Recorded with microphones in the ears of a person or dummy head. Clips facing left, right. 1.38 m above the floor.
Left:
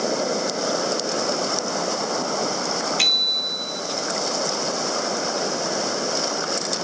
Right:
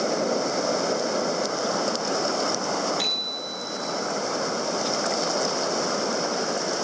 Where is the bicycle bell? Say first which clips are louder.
Even; 35° left (ahead or behind), 2.5 m.